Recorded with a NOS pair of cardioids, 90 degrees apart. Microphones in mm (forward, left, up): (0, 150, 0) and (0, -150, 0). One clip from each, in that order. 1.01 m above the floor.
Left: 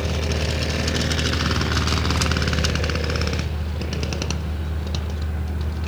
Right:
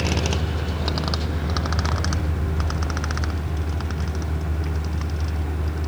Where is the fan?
30° right, 2.5 m.